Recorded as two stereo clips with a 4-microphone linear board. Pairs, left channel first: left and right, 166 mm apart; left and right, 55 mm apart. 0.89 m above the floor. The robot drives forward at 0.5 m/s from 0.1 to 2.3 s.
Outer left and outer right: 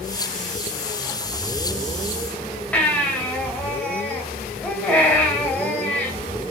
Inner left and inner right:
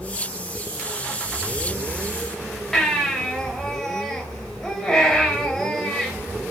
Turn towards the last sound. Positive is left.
turn(degrees=10)  # may be behind; listen again after turning